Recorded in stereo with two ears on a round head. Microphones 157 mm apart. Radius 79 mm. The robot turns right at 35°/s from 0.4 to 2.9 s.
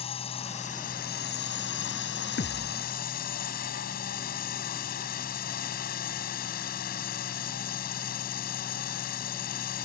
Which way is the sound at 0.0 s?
35° left.